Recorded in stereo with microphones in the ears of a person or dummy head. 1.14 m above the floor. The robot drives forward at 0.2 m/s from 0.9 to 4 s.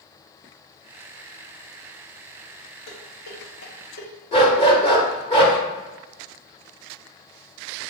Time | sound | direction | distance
2.9 | dishes clattering | 65° left (ahead or behind) | 1.0 m
4.3 | a dog barking | 35° left (ahead or behind) | 1.0 m